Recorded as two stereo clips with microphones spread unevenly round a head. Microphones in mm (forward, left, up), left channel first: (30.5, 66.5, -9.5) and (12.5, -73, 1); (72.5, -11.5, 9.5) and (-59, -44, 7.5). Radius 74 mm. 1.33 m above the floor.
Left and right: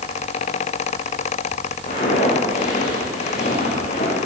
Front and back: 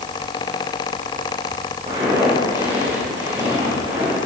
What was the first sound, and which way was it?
Footsteps, 135° left.